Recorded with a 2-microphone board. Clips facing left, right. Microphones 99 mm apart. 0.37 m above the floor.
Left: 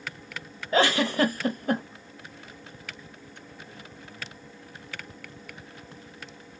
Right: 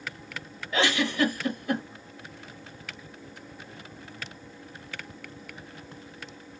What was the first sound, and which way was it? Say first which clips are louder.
A giggle: left 3 dB; 40° left (ahead or behind).